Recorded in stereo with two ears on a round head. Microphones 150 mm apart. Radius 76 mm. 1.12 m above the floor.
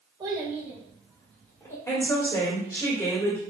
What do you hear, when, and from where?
0.2 s a child speaking: 25° right (ahead or behind), 1.3 m; by 1.8 s 15° left (ahead or behind), 2 m
1.9 s a woman speaking: 15° left (ahead or behind), 1.9 m